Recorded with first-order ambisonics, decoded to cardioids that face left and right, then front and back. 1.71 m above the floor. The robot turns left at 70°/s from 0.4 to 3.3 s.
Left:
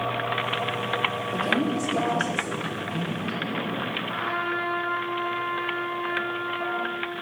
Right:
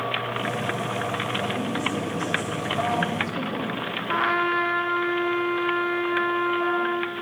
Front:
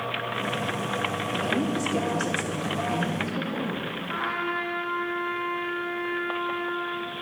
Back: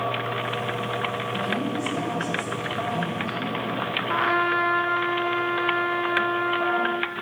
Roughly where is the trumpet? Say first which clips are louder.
Right 8 dB, back 6 dB; behind right.